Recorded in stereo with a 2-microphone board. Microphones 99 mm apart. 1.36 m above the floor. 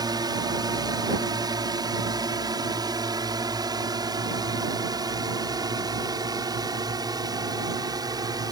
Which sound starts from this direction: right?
A drone, at 0.0 s.